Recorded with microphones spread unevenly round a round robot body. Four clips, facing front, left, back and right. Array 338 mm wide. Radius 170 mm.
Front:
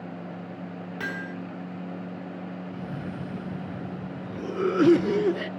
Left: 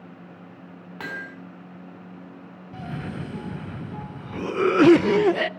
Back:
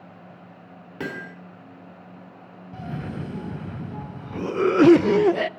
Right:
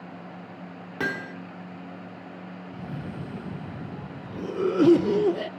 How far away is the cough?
About 0.5 m.